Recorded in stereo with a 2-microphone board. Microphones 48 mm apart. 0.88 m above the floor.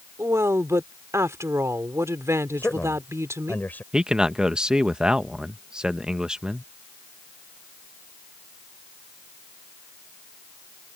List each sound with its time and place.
0.2 s a woman speaking: 75° right (ahead or behind)
2.6 s a man speaking: 40° left (ahead or behind)
3.9 s a man speaking: 15° right (ahead or behind)